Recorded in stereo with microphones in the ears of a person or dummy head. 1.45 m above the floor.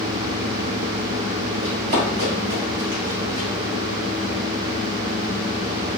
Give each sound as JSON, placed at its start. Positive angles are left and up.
{"t": 1.6, "sound": "running footsteps", "side_deg": -50, "distance_m": 2.0}